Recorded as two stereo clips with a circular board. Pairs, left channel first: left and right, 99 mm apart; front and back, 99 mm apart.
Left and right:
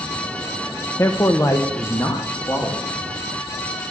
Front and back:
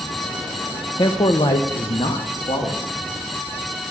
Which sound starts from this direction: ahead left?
A man speaking, at 1.0 s.